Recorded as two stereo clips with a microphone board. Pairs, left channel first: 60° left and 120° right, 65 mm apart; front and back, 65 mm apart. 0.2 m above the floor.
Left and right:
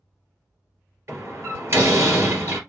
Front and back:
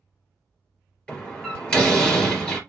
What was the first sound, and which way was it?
A door slam, 75° right.